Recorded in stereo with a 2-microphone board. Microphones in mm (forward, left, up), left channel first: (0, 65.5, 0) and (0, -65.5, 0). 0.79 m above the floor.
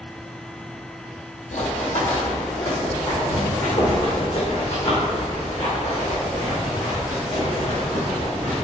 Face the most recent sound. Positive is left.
turn(degrees=65)  # may be behind; listen again after turning